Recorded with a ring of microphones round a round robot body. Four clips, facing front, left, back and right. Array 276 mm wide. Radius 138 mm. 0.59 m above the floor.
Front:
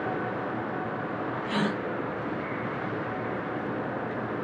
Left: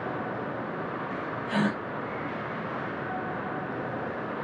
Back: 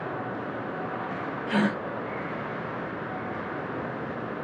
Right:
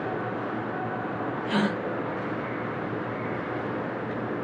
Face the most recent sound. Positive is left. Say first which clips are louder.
# right 1 dB, back 4 dB
turn(degrees=-115)